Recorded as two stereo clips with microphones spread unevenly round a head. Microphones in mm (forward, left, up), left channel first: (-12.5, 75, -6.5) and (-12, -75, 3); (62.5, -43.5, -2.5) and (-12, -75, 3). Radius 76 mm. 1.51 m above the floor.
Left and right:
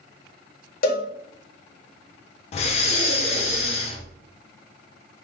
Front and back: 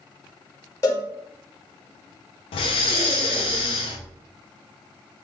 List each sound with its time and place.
0.8 s a cowbell: 85° left, 1.1 m
2.5 s breathing: 40° left, 0.9 m